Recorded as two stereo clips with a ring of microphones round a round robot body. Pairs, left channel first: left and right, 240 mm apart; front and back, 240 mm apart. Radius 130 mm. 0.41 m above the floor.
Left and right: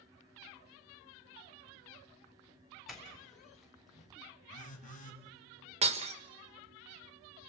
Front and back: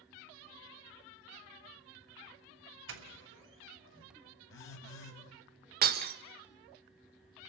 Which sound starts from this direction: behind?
A doorbell, at 2.9 s.